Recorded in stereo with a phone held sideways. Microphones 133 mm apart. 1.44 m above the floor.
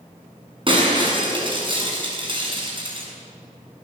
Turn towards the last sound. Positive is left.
turn(degrees=-40)  # may be behind; listen again after turning